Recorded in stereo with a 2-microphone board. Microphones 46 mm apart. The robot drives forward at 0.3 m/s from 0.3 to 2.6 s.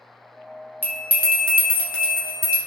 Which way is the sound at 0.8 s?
45° right (ahead or behind).